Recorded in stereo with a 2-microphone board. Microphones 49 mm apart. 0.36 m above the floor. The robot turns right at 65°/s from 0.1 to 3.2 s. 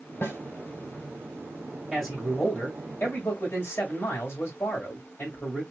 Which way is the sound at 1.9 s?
Straight ahead.